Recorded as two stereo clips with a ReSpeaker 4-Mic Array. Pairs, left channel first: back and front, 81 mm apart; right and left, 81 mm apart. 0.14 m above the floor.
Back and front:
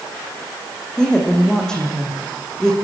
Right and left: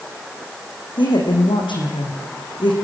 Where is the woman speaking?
100° right, 7 m.